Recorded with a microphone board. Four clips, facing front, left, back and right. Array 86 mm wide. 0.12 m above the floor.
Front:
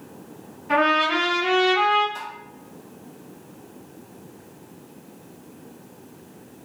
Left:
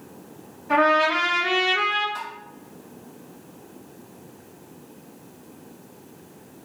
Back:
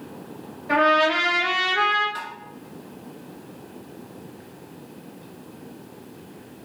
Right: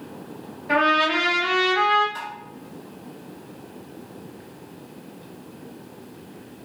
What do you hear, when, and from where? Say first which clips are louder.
0.7 s a trumpet: left 1 dB, back 1 dB; 130° right, 2.0 m
2.1 s tapping: right 1 dB, back 1 dB; straight behind, 1.3 m